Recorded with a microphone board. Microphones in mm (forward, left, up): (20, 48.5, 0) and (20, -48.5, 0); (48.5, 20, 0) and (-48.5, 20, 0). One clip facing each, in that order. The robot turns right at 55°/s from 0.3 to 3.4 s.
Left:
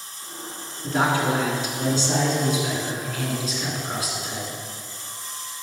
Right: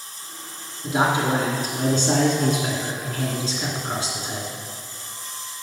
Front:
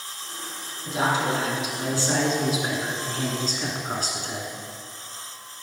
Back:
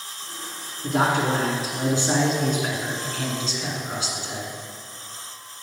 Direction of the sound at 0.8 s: 175° right.